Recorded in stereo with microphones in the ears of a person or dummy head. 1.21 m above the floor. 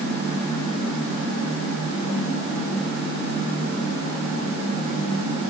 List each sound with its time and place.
Only background noise.